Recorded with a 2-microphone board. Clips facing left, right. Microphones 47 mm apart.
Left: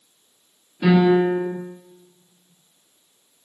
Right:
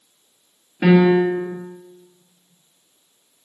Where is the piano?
40° right (ahead or behind), 2 m.